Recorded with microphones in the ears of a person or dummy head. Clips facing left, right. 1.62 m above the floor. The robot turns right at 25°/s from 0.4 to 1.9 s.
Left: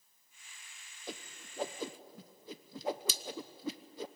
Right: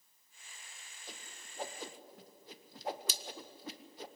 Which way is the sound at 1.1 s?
50° left (ahead or behind).